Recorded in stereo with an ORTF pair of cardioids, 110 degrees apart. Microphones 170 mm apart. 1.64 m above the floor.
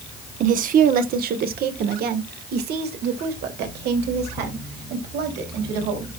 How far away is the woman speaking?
About 1.1 m.